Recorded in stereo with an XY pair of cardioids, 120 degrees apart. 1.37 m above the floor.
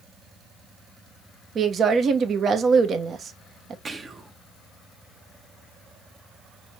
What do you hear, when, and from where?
1.6 s a woman speaking: 45° right, 1.1 m
3.9 s whispering: 25° right, 1.0 m